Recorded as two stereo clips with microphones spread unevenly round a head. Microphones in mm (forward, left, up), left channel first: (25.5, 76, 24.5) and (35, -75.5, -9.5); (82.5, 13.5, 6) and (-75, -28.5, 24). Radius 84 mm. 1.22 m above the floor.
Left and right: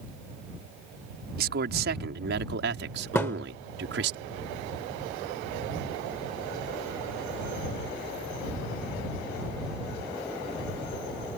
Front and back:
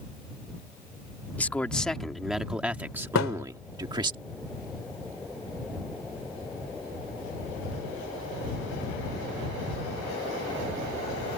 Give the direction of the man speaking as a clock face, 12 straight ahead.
2 o'clock.